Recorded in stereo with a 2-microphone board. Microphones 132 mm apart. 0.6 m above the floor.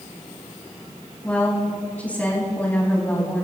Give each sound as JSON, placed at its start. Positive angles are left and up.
{"t": 1.2, "sound": "a woman speaking", "side_deg": 10, "distance_m": 4.5}